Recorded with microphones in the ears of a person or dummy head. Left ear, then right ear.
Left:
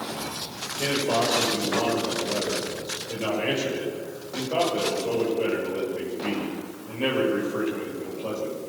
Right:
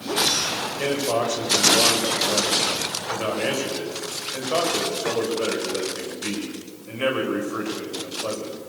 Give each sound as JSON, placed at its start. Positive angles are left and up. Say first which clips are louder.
{"t": 0.8, "sound": "a man speaking", "louder": "left 1 dB", "side_deg": -65, "distance_m": 7.5}